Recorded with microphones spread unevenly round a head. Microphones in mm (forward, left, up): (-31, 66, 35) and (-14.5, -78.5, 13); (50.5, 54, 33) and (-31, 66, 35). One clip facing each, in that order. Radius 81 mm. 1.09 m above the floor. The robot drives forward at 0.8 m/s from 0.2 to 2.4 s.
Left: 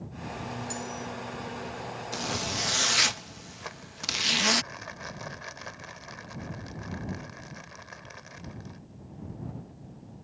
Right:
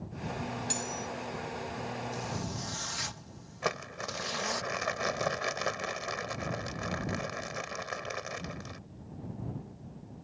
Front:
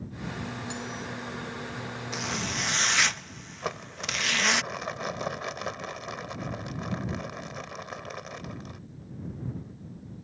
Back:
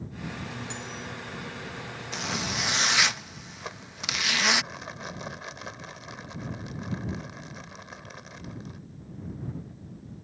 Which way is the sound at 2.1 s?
80° left.